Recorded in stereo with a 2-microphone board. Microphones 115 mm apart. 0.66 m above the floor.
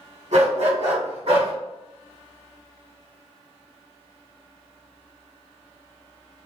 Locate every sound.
0.3 s a dog barking: 75° right (ahead or behind), 1.8 m; by 1.5 s 55° right (ahead or behind), 1.8 m